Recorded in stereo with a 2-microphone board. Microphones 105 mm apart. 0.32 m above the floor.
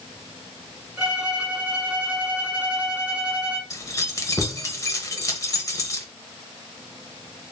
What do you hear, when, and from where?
1.0 s a violin: 10° right (ahead or behind), 1.3 m
3.7 s keys jangling: 30° left (ahead or behind), 0.9 m